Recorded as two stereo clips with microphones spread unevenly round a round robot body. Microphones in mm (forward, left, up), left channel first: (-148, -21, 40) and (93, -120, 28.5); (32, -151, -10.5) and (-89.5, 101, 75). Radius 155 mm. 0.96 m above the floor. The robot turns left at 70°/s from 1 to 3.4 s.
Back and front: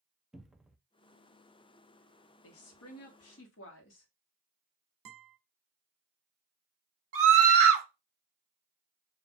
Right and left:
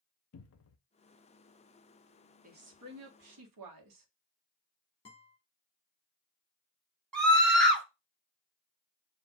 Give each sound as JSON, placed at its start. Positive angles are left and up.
{"t": 0.3, "sound": "a cupboard door", "azimuth_deg": -110, "distance_m": 0.6}
{"t": 2.4, "sound": "a woman speaking", "azimuth_deg": -175, "distance_m": 1.3}
{"t": 5.0, "sound": "a guitar", "azimuth_deg": 10, "distance_m": 1.5}
{"t": 7.1, "sound": "a scream", "azimuth_deg": 20, "distance_m": 1.5}